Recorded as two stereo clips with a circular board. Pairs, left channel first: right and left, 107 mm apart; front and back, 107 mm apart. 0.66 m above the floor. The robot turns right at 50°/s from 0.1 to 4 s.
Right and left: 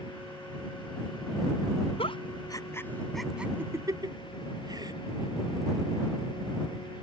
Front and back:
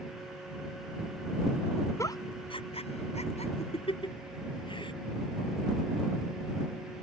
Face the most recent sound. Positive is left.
turn(degrees=40)